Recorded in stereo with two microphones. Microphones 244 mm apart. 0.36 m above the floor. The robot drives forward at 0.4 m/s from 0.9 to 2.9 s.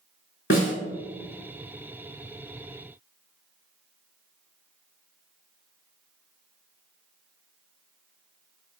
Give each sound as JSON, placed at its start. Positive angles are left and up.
{"t": 0.5, "sound": "a snare drum", "side_deg": 55, "distance_m": 1.0}